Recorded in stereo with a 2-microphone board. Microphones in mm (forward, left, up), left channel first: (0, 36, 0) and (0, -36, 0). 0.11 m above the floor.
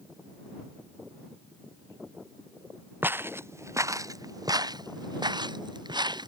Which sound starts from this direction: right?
Footsteps, at 3.0 s.